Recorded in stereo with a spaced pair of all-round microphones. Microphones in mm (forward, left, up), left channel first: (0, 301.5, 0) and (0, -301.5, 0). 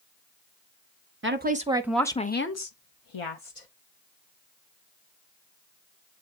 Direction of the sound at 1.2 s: 20° right (ahead or behind).